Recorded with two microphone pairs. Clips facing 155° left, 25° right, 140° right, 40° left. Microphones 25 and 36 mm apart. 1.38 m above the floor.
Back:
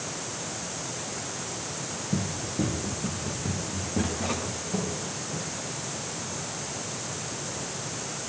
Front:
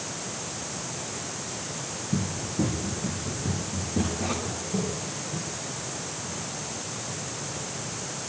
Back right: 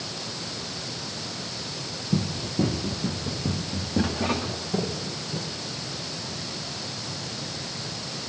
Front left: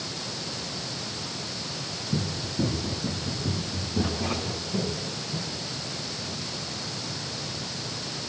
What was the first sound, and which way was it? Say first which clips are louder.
Running footsteps: front 1 dB, back right 3 dB; 145° right.